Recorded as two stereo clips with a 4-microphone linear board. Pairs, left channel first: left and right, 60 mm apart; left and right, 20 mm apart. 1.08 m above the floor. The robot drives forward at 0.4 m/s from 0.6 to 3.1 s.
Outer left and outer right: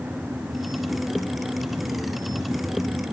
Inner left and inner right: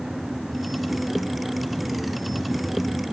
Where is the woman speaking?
No woman speaking in this recording.